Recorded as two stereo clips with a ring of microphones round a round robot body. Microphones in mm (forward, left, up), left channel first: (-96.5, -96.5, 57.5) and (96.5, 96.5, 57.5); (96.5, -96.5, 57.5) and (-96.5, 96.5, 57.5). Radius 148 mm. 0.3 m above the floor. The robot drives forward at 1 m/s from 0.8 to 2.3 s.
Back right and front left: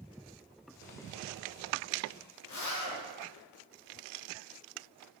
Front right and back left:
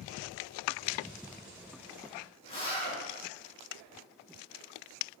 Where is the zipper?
115° right, 4.5 m.